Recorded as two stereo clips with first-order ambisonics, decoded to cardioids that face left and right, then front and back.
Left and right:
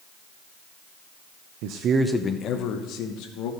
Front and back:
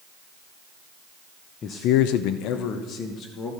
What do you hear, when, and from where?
1.6 s a man speaking: 65° right, 0.6 m; by 3.5 s 55° left, 2 m